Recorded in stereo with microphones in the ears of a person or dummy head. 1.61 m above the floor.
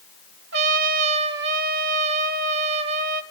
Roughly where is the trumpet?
Right.